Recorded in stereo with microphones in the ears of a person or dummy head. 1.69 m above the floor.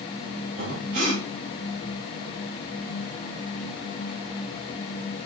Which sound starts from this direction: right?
Breathing, at 0.6 s.